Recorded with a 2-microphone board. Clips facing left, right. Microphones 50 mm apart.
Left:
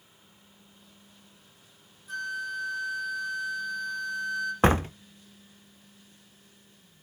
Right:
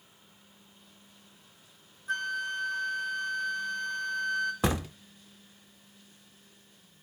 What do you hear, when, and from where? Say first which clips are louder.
2.1 s a flute: right 1 dB; 50° right (ahead or behind), 2.5 m
4.6 s a door slam: left 7 dB; 40° left (ahead or behind), 0.7 m